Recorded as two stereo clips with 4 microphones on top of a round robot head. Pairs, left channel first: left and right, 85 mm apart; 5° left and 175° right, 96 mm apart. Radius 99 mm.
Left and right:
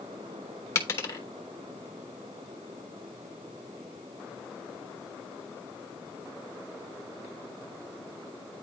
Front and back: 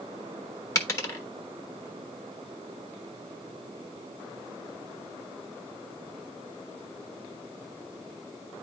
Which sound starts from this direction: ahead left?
A dropped coin, at 0.8 s.